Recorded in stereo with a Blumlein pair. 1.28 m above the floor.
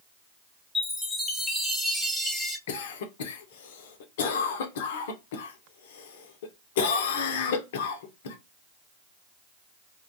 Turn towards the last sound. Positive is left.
turn(degrees=55)